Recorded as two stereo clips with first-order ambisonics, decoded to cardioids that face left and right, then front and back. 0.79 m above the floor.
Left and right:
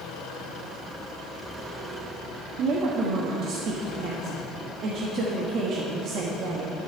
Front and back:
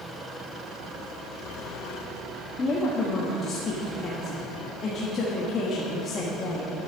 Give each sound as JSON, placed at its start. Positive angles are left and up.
{"t": 2.6, "sound": "a woman speaking", "azimuth_deg": -55, "distance_m": 1.3}